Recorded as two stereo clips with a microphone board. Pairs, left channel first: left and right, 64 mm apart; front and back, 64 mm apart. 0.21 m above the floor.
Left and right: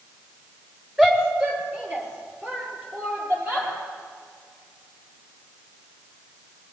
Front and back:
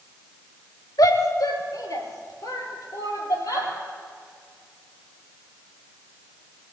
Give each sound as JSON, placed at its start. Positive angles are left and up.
{"t": 1.0, "sound": "a shout", "azimuth_deg": -15, "distance_m": 3.5}